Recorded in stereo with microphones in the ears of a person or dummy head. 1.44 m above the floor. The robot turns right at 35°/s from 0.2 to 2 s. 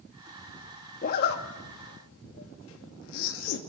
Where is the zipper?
55° left (ahead or behind), 2.5 m; by 3.6 s 85° left, 2.5 m.